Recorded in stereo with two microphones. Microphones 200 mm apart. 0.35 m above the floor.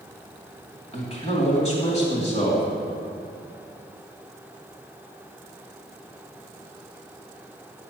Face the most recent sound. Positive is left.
turn(degrees=30)  # may be behind; listen again after turning